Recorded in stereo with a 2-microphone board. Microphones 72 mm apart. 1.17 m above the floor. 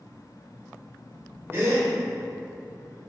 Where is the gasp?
35° right (ahead or behind), 2.5 m.